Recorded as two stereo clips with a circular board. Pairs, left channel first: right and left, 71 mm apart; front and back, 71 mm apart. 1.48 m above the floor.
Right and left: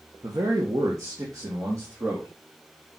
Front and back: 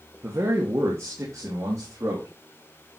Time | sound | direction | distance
0.2 | a man speaking | 130° left | 1.6 m